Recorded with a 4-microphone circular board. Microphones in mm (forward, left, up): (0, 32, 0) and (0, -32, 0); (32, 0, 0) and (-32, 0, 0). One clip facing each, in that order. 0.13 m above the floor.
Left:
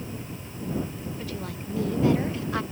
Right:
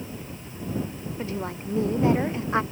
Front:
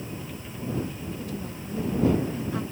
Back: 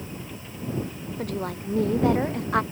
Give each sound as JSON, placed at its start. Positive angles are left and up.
{"t": 1.2, "sound": "a woman speaking", "azimuth_deg": -155}